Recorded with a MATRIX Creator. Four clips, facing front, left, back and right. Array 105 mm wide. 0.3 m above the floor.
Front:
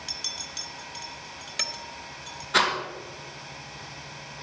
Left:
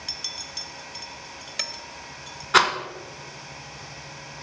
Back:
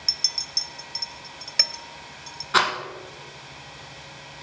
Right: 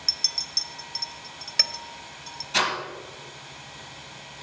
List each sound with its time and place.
0.1 s a clink: 145° right, 0.6 m
2.5 s a rattle: 115° left, 1.4 m